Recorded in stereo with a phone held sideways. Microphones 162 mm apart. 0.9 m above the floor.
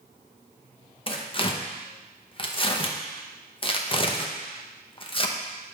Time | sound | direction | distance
1.1 | tearing paper | 35° left (ahead or behind) | 0.6 m